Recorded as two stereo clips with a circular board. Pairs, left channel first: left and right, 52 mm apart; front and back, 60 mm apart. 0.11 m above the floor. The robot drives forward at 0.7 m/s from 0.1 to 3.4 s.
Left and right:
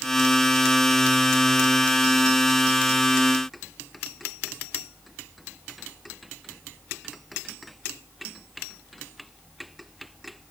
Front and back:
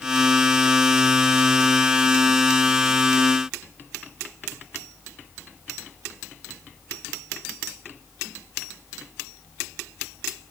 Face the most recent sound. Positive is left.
No sound to turn to.